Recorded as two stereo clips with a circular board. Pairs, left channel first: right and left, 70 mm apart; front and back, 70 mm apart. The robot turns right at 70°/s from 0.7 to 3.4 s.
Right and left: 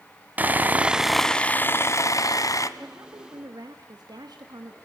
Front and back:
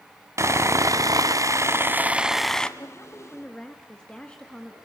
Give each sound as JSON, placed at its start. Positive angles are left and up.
{"t": 0.4, "sound": "sawing", "azimuth_deg": 150, "distance_m": 1.3}
{"t": 2.8, "sound": "a woman speaking", "azimuth_deg": 35, "distance_m": 1.9}